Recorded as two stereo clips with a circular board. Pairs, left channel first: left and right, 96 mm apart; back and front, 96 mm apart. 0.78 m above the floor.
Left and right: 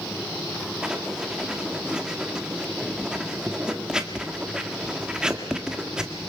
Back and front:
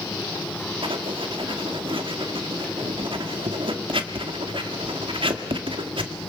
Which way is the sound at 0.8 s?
10° right.